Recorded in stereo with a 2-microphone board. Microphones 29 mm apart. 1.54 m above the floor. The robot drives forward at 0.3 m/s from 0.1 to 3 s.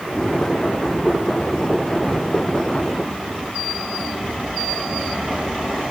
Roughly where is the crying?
No crying in this recording.